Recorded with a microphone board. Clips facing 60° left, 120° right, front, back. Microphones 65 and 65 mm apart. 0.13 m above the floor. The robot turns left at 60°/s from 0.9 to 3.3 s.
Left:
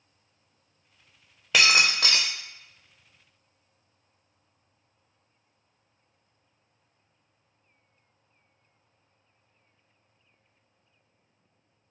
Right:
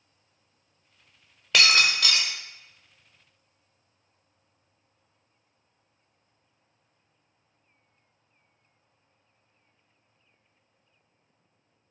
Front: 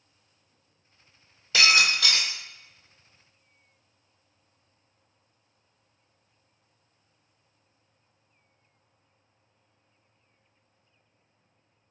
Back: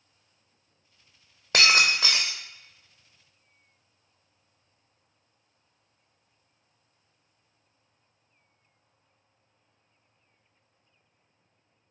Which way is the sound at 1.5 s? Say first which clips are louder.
Even, even; 145° left.